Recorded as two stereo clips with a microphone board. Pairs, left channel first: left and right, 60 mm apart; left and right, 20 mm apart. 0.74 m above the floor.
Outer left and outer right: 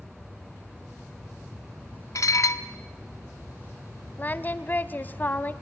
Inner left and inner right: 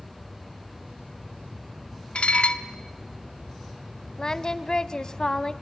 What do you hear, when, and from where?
2.1 s dishes clattering: 65° left (ahead or behind), 0.9 m
4.2 s singing: 35° left (ahead or behind), 0.8 m